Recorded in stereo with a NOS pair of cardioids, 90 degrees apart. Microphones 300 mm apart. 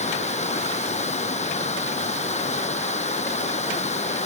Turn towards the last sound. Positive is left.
turn(degrees=20)